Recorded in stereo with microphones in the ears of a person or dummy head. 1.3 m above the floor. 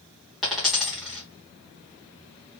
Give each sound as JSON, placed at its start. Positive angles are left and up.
{"t": 0.4, "sound": "a dropped coin", "side_deg": 0, "distance_m": 1.0}